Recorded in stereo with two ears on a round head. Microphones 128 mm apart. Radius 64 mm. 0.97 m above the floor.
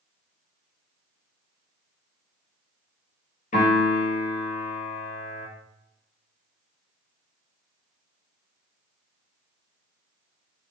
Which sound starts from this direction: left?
A piano, at 3.5 s.